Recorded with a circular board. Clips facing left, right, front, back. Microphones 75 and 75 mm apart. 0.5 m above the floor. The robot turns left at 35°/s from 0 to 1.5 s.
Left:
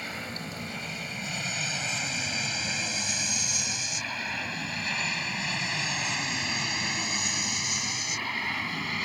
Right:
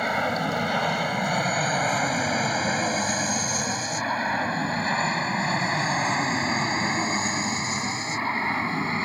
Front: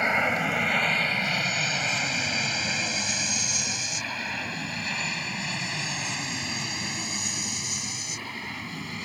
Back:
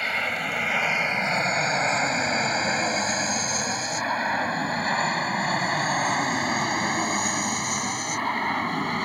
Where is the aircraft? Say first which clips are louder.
Right 13 dB, front 3 dB; 65° right; by 9.1 s 145° right.